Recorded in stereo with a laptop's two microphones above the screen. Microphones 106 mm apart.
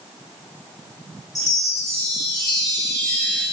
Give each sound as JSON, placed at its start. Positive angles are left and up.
{"t": 1.4, "sound": "a chime", "side_deg": 35, "distance_m": 2.5}